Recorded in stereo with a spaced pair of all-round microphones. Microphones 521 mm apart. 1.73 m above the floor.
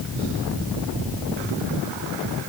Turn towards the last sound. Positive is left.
No sound to turn to.